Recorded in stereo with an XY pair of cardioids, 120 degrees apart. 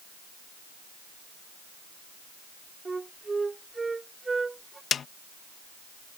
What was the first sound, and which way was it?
A flute, 20° right.